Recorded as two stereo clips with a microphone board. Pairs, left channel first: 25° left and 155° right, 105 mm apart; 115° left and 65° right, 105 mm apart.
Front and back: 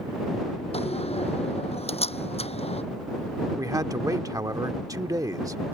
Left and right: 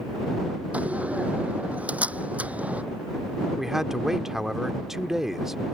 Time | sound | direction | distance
0.7 | a door slam | 10° left | ?
3.6 | a man speaking | 150° right | ?